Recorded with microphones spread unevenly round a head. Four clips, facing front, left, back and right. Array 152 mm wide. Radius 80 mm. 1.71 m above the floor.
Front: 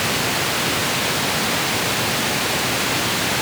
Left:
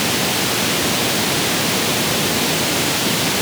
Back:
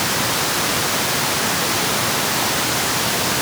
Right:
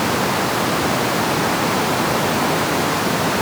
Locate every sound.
Only background noise.